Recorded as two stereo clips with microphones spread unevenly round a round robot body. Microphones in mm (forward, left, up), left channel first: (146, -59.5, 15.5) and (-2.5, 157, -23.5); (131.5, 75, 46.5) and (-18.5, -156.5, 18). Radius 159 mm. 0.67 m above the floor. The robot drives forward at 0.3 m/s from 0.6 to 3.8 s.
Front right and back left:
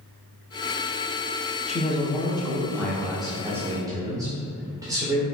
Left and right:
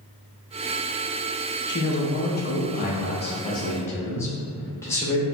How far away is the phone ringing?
No phone ringing in this recording.